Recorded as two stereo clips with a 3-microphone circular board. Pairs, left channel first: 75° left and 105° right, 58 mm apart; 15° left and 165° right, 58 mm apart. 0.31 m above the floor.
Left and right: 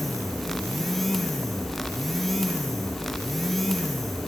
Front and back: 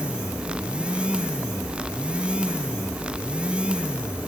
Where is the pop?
I don't hear a pop.